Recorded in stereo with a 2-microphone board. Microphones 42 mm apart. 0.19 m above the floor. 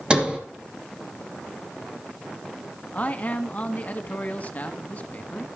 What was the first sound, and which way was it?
A sliding door, 25° right (ahead or behind).